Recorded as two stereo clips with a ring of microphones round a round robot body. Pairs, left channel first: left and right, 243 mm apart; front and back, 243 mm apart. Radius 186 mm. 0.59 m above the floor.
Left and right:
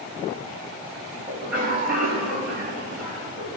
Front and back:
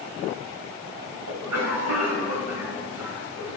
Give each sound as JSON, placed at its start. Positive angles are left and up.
{"t": 1.3, "sound": "a cough", "azimuth_deg": 180, "distance_m": 4.5}